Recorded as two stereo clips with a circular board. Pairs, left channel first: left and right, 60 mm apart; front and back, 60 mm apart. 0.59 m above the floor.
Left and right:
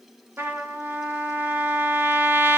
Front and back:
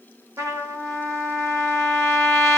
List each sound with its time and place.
0.4 s a trumpet: 145° right, 0.8 m